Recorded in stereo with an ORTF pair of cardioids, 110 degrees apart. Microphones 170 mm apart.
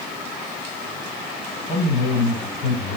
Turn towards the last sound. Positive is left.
turn(degrees=45)